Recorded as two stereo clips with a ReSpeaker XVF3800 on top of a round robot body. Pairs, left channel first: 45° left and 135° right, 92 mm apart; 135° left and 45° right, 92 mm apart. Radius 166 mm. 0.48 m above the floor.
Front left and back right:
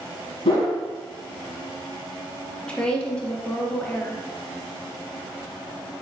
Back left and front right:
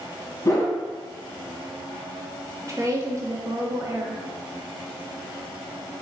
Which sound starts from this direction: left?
A whoosh, at 0.5 s.